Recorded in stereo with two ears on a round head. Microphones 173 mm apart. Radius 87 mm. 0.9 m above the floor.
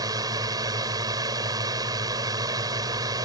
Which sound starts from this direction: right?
A drone, at 0.0 s.